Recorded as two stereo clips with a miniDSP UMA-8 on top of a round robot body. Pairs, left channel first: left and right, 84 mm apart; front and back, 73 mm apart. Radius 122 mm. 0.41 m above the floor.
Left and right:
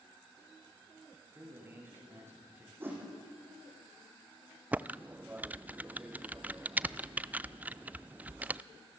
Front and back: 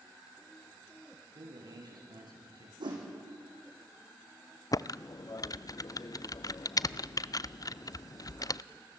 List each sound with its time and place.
1.3 s a man speaking: 155° right, 8 m
2.8 s a whoosh: 155° right, 7 m
4.7 s typing on a keyboard: 20° right, 0.6 m